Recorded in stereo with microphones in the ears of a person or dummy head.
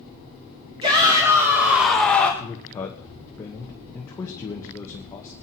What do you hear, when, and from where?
0.8 s a shout: 25° right (ahead or behind), 2.0 m; by 2.3 s 10° left (ahead or behind), 1.8 m
2.4 s a man speaking: 20° left (ahead or behind), 1.2 m